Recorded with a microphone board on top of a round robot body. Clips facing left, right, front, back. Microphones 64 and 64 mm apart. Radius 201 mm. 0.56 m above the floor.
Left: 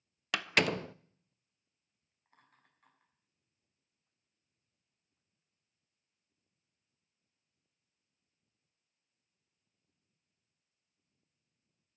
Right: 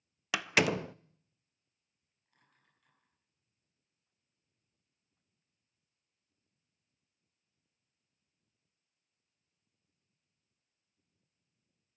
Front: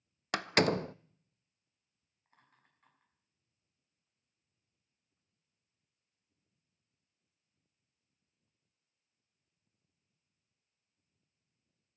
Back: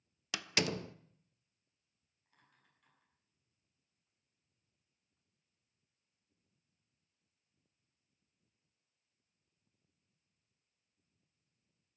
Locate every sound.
0.3 s a door slam: 5° right, 0.5 m
2.2 s laughter: 50° left, 6.5 m